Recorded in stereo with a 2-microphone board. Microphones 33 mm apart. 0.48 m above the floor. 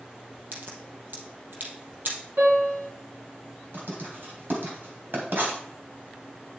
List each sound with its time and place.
0.5 s a crack: 60° right (ahead or behind), 3 m
2.4 s a piano: 80° right, 5.5 m
3.7 s writing: 70° right (ahead or behind), 3 m